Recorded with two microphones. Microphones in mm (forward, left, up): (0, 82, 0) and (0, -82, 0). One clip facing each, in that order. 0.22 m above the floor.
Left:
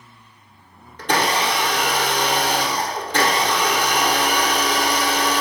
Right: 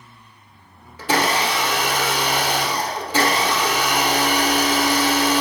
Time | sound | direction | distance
1.0 | a blender | 5° right (ahead or behind) | 1.3 m